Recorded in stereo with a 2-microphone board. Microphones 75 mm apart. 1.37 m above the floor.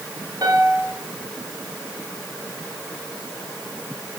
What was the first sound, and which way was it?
A piano, 50° right (ahead or behind).